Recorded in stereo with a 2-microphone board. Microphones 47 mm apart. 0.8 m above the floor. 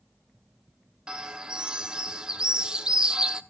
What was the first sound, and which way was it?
A bird, 20° right (ahead or behind).